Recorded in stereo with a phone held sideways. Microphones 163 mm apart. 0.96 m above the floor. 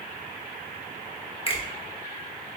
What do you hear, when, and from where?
1.5 s a finger snap: 35° left (ahead or behind), 1.0 m